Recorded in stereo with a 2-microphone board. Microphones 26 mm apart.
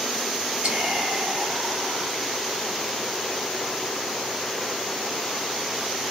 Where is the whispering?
45° right (ahead or behind), 1.6 m.